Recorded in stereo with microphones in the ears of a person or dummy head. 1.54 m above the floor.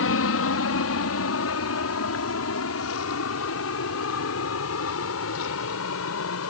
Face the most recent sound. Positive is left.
turn(degrees=75)  # may be behind; listen again after turning